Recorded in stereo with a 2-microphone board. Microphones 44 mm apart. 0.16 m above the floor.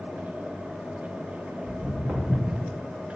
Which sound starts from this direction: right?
Footsteps, at 1.6 s.